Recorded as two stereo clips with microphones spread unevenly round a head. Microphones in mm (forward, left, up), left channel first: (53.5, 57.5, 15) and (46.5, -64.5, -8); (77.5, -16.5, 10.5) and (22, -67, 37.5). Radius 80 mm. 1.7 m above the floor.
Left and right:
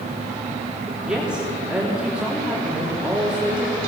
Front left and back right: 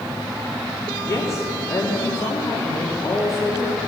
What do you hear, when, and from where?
1.1 s a woman speaking: 10° right, 3.5 m